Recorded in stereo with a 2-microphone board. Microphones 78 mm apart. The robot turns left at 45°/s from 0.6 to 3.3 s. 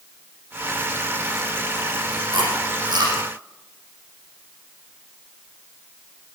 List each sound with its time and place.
2.3 s chewing: 85° right, 9 m; by 3.2 s 55° right (ahead or behind), 9 m